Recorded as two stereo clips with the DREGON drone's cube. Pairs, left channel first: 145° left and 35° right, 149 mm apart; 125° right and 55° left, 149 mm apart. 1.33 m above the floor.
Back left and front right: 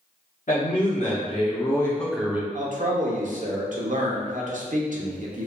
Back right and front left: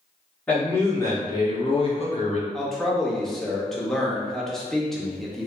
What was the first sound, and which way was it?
A man speaking, 155° left.